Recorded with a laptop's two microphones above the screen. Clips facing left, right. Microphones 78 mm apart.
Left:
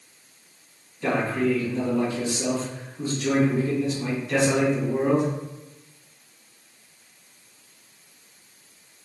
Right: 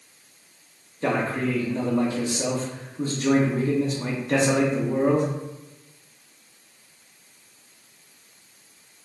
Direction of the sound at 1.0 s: 40° right (ahead or behind).